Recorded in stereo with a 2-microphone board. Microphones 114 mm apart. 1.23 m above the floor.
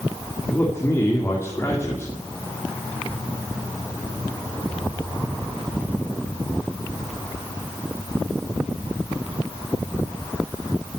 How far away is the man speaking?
About 3 m.